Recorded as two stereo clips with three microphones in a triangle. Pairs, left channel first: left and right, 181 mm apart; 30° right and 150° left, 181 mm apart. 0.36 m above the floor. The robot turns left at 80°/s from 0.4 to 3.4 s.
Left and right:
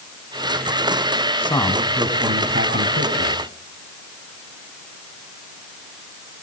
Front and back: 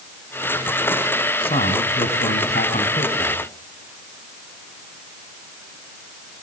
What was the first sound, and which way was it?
A man speaking, 30° left.